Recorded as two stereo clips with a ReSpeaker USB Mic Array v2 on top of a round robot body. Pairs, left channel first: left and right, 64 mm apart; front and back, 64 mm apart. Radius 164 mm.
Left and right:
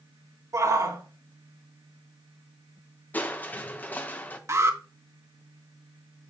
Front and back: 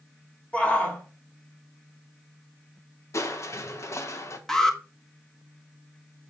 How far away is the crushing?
About 1.3 m.